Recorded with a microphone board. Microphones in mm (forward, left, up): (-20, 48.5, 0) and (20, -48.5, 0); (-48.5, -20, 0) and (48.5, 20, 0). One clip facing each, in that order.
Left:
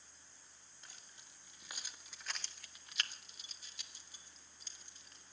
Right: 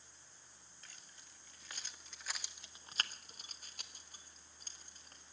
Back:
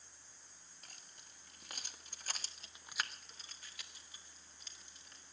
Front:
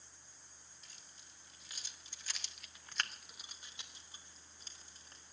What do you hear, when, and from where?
0.8 s keys jangling: 175° left, 2.5 m; by 5.2 s 25° right, 3 m